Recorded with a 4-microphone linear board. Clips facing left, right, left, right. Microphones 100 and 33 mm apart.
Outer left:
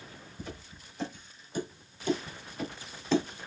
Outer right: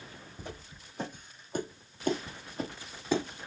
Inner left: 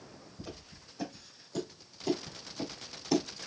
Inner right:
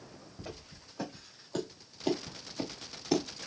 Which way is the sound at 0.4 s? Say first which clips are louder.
Outer left 2 dB, inner right 1 dB; 45° right (ahead or behind).